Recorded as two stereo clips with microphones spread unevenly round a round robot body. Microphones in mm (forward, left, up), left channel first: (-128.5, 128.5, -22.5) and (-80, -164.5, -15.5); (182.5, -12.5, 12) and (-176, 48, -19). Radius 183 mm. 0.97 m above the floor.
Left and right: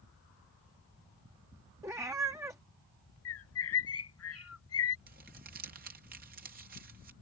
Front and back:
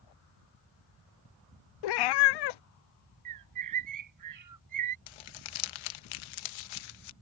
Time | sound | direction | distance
1.8 | a cat meowing | straight ahead | ?
3.2 | a bird | 135° left | ?
5.1 | crumpling | 15° right | ?